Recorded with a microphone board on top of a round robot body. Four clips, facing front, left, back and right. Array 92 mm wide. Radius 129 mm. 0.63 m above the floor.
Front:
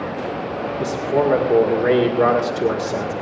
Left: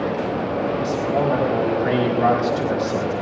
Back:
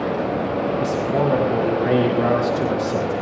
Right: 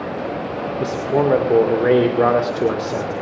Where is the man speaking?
65° right, 2.5 m.